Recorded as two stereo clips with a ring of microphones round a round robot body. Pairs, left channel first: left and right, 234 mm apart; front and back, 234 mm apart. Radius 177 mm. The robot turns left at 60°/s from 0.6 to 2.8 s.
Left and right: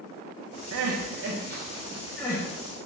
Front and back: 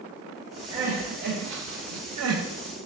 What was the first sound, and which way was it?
Crying, 95° right.